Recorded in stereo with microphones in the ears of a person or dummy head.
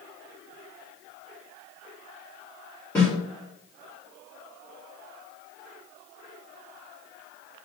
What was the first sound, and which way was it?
A snare drum, 10° left (ahead or behind).